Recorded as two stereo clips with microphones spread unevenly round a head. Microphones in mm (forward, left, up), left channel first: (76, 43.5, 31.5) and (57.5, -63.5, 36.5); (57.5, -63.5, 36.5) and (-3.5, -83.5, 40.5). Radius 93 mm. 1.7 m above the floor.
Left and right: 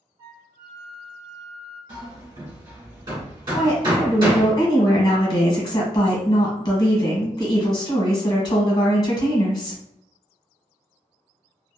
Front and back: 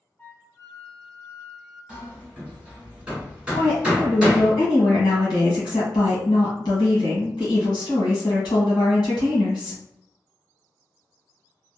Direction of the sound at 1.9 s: 100° right.